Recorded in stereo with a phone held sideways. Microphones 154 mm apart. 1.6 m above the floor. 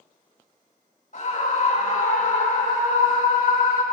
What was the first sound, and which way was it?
A scream, 60° left (ahead or behind).